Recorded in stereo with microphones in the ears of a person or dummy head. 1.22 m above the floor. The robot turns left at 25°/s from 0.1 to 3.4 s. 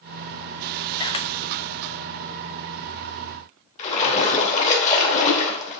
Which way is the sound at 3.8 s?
35° left (ahead or behind).